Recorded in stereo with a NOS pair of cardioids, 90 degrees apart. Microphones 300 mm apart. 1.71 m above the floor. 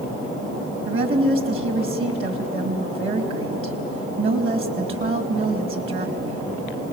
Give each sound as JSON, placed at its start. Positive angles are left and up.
{"t": 0.8, "sound": "a woman speaking", "azimuth_deg": -45, "distance_m": 3.0}